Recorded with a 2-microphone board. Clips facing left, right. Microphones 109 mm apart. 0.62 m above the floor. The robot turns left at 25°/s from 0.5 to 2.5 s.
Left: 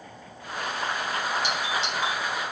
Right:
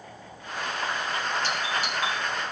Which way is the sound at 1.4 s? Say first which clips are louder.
Left 1 dB; 15° left (ahead or behind).